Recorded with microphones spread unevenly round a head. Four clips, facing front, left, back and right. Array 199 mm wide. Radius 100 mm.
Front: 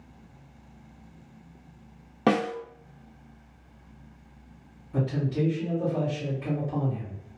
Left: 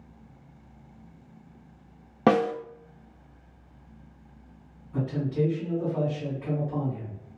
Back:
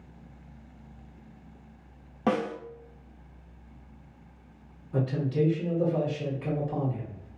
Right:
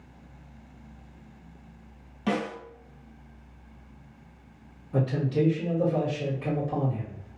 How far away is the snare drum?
About 0.7 m.